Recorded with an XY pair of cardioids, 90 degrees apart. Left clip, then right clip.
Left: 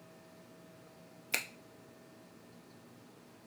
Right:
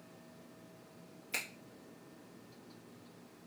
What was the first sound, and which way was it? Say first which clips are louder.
A finger snap: left 3 dB; 65° left.